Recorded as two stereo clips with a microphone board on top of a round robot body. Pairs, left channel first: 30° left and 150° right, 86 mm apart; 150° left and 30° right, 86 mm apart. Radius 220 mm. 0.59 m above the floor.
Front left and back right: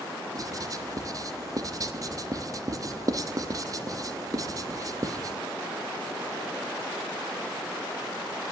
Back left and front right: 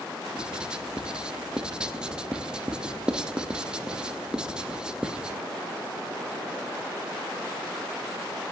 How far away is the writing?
About 1.0 m.